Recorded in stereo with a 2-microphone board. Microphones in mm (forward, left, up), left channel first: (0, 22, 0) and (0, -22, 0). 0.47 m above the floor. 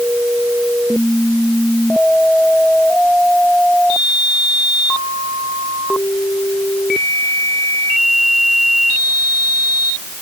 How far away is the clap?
I don't hear a clap.